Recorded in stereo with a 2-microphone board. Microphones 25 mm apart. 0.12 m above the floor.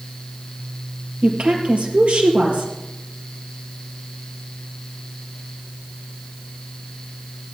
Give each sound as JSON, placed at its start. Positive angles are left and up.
{"t": 1.2, "sound": "a woman speaking", "side_deg": -65, "distance_m": 3.0}